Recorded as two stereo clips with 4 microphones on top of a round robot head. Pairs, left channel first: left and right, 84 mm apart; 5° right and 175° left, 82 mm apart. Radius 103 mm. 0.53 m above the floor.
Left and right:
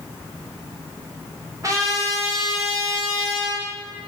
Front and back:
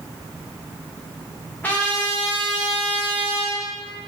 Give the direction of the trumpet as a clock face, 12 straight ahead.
2 o'clock.